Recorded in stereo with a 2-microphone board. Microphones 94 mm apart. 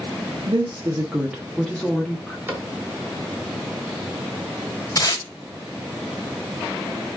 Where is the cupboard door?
20° right (ahead or behind), 1.1 m.